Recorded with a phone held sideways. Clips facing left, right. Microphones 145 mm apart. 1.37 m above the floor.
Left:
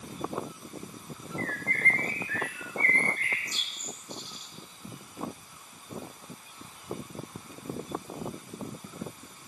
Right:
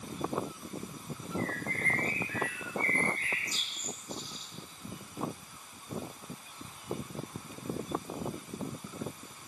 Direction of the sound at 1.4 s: 60° left (ahead or behind).